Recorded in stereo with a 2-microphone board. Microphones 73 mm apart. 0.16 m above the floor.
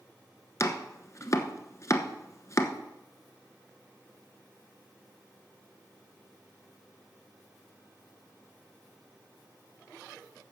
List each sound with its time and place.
0.6 s chopping: 40° left (ahead or behind), 1.0 m